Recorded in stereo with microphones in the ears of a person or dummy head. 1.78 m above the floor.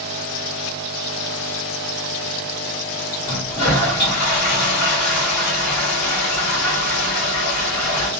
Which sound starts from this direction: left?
A toilet flushing, at 3.2 s.